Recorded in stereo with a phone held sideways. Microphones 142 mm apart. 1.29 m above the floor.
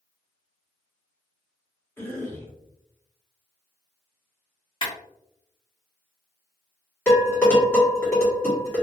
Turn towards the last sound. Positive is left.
turn(degrees=15)  # may be behind; listen again after turning